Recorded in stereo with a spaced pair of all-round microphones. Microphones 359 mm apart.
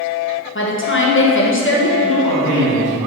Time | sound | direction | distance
0.6 | a woman speaking | 35° left (ahead or behind) | 1.4 m
2.0 | a man speaking | 65° left (ahead or behind) | 3 m